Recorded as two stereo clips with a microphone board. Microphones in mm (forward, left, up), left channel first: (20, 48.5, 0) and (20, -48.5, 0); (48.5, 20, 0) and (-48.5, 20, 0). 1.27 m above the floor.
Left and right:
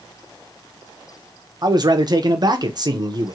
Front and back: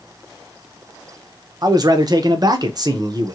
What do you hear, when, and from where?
1.6 s a man speaking: 135° right, 0.8 m